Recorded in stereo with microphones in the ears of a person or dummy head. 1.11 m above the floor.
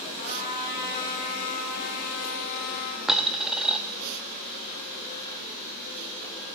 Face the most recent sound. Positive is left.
turn(degrees=-5)  # may be behind; listen again after turning